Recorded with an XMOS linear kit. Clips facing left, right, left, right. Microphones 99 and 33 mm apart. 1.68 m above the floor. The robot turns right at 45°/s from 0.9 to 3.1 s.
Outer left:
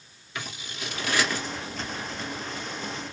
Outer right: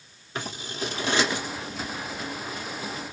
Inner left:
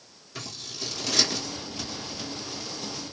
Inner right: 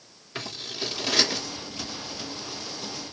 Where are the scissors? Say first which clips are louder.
Outer right 5 dB, inner right 4 dB; 35° right (ahead or behind), 1.5 m; by 1.5 s 10° right (ahead or behind), 1.5 m.